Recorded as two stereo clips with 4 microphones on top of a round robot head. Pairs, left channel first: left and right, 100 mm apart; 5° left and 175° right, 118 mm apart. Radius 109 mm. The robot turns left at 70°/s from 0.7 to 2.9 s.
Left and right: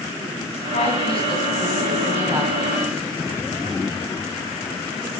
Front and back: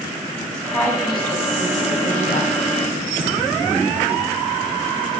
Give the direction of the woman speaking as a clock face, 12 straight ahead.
9 o'clock.